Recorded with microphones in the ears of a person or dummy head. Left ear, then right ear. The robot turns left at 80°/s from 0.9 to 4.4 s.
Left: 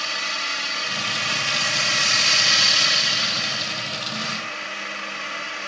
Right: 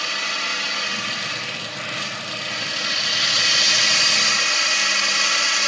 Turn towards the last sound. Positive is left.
turn(degrees=-100)